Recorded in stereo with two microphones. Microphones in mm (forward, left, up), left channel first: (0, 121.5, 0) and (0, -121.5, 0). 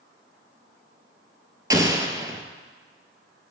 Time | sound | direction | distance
1.7 | an explosion | 15° right (ahead or behind) | 0.5 m